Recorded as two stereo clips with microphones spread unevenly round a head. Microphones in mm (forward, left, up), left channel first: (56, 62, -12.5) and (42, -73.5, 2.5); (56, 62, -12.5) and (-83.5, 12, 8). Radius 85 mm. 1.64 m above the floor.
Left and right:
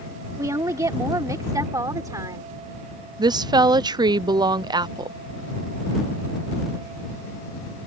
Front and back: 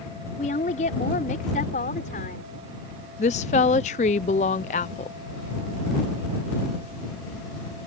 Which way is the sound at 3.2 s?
35° right.